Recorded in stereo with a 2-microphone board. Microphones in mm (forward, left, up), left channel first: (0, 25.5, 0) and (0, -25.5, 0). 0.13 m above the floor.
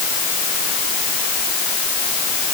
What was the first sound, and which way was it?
Only background noise.